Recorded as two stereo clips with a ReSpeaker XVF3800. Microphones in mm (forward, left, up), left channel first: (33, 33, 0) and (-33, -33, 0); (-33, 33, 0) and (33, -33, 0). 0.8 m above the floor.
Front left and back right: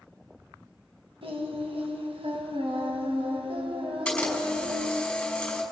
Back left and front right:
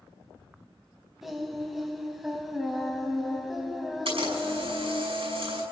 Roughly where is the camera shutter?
Ahead right.